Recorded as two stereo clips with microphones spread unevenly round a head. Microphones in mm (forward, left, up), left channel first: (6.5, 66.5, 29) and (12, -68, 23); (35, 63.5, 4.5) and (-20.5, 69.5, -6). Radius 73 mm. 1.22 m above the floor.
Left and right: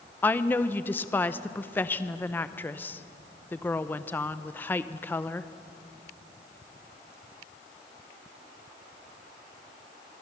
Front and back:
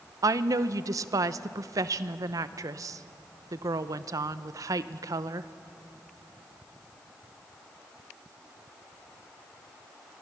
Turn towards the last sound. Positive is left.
turn(degrees=170)